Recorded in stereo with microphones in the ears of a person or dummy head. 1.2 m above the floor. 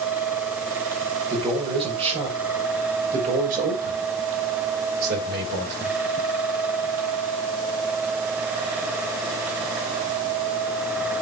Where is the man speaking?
25° right (ahead or behind), 4.5 m; by 6.0 s 60° right (ahead or behind), 5 m.